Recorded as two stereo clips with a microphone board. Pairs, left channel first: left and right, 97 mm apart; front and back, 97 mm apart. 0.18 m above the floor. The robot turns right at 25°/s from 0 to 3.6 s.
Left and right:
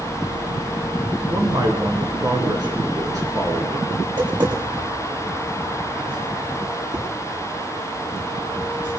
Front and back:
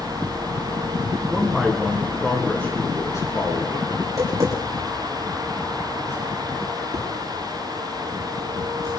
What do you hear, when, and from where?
1.3 s a man speaking: 95° right, 2.5 m; by 3.9 s 40° right, 2.5 m
4.0 s tapping: 125° right, 9 m